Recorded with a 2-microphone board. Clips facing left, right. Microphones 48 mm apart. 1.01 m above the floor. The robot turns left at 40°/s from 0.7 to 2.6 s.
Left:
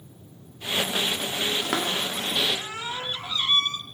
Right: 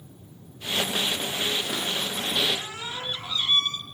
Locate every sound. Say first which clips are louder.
1.6 s a cupboard door: left 3 dB; 65° left (ahead or behind), 1.5 m; by 3.8 s 25° left (ahead or behind), 1.5 m